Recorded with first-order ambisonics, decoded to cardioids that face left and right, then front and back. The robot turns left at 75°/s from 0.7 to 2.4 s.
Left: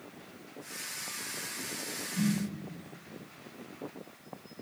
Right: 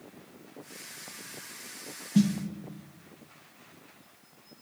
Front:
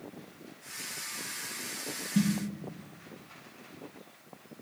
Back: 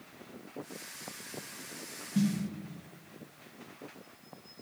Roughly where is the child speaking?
No child speaking in this recording.